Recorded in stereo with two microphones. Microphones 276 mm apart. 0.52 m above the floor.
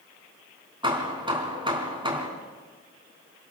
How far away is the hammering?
About 3.5 m.